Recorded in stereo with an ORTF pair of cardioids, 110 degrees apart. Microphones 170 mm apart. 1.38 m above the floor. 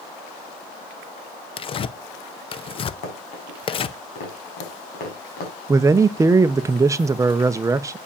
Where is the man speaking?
20° right, 0.8 m.